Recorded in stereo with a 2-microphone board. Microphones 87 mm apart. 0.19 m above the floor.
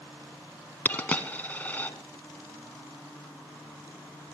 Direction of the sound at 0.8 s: 20° left (ahead or behind).